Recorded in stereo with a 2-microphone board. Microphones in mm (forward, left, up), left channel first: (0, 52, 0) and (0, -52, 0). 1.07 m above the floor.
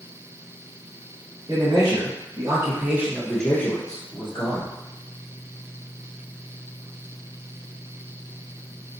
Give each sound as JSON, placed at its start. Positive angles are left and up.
{"t": 1.5, "sound": "a man speaking", "side_deg": -40, "distance_m": 1.6}